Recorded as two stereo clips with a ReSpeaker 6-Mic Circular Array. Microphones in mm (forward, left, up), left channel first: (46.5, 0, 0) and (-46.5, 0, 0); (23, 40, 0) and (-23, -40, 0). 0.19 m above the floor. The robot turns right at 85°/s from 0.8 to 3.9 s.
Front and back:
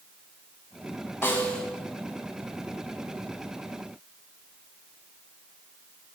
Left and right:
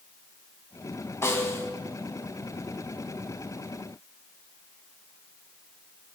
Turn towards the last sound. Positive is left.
turn(degrees=-95)